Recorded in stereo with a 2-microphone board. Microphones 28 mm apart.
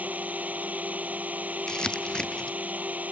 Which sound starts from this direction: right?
A drone, at 0.0 s.